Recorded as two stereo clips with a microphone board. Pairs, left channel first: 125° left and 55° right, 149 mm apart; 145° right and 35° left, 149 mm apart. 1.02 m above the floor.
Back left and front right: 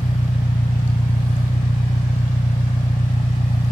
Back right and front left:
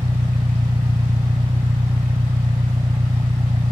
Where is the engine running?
95° left.